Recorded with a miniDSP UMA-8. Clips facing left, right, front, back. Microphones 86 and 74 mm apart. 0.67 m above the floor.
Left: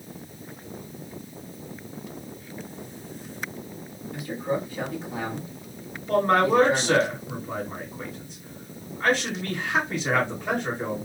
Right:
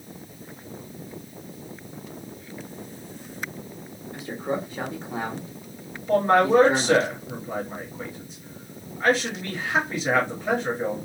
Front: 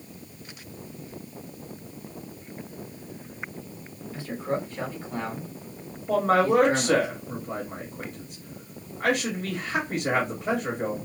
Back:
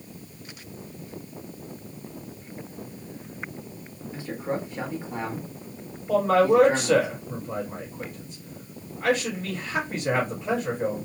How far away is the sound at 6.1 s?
About 1.8 m.